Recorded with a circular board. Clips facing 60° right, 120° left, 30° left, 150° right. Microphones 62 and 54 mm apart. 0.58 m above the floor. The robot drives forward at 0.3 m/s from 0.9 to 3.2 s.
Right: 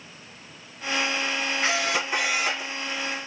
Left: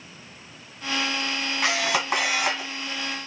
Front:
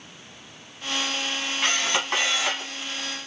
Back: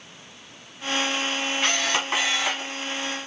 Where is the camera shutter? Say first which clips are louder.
Left 3 dB, front 1 dB; 115° left, 1.7 m; by 2.7 s 125° left, 1.9 m.